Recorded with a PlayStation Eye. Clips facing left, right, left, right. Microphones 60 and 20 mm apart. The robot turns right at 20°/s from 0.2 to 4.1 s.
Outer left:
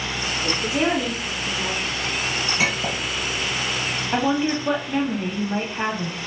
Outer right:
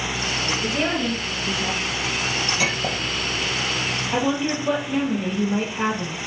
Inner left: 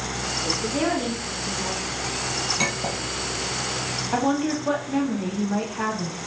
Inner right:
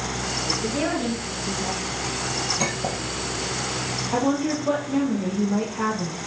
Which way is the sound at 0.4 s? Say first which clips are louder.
Outer left 3 dB, inner left 1 dB; 20° left (ahead or behind).